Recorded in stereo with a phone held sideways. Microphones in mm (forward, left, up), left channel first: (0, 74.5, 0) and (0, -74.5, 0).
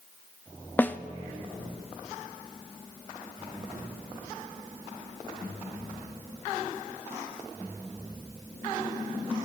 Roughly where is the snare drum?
Centre.